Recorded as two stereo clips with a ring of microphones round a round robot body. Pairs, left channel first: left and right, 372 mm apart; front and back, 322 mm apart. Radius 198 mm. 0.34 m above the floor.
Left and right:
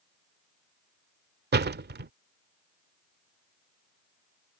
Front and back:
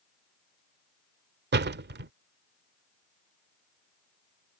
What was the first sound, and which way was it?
A door slam, 140° right.